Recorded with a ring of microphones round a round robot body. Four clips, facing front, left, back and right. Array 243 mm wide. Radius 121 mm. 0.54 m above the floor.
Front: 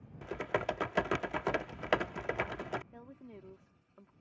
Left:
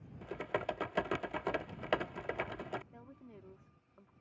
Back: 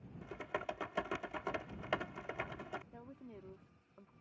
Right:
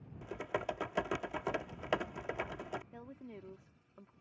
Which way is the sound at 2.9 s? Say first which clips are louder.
Right 5 dB, front 2 dB; 70° right.